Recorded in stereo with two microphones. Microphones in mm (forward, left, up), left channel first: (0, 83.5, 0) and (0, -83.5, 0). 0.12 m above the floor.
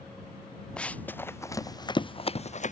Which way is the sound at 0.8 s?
5° left (ahead or behind).